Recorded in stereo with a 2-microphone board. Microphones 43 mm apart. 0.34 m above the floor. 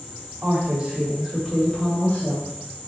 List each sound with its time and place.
0.4 s a woman speaking: 45° right (ahead or behind), 1.9 m; by 2.5 s 45° left (ahead or behind), 1.9 m